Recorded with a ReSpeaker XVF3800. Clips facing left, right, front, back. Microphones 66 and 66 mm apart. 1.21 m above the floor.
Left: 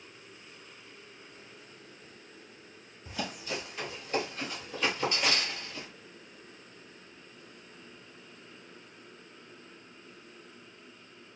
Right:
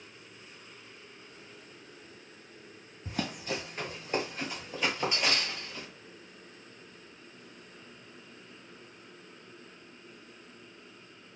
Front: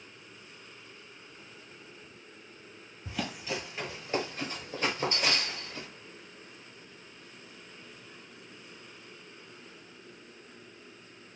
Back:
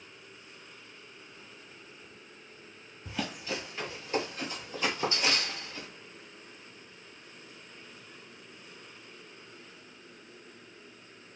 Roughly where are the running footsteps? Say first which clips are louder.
Right 2 dB, even; right.